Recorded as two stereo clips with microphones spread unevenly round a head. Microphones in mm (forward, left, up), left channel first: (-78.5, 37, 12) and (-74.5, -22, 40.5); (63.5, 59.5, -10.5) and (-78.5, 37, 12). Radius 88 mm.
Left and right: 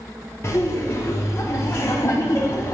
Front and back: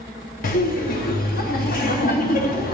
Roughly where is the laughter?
Ahead left.